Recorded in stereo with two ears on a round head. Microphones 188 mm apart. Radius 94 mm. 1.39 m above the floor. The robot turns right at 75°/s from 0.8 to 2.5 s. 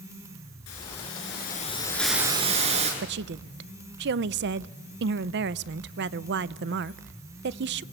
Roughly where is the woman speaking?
Right.